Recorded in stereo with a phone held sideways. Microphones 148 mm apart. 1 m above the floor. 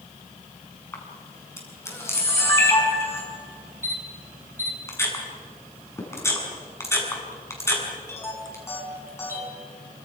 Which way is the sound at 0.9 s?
15° left (ahead or behind).